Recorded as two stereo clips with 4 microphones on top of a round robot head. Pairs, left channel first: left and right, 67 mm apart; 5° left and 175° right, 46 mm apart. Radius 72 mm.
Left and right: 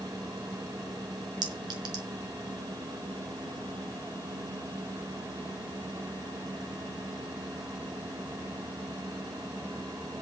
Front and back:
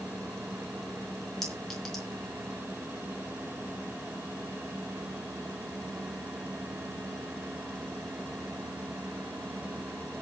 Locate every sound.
1.4 s a clink: 80° right, 4 m